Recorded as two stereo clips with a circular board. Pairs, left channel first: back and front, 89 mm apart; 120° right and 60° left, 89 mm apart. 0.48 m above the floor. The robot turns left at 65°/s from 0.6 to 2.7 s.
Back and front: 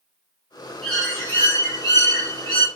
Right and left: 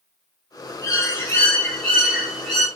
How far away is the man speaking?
No man speaking in this recording.